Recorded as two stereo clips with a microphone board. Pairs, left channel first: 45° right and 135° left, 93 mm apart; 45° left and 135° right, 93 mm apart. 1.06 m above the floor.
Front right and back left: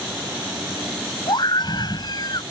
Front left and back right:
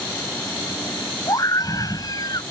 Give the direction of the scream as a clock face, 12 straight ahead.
12 o'clock.